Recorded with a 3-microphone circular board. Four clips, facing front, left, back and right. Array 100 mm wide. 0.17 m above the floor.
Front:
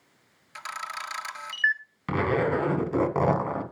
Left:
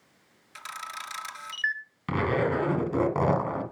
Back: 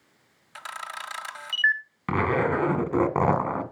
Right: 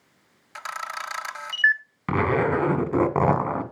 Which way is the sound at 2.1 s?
130° right.